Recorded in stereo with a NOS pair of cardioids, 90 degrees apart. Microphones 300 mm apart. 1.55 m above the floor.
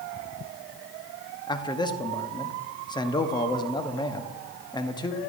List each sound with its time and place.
1.5 s a man speaking: 15° left, 0.9 m